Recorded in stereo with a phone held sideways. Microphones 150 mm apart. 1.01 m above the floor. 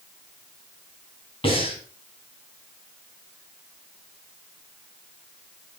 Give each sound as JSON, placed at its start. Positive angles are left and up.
{"t": 1.4, "sound": "breathing", "side_deg": 40, "distance_m": 3.0}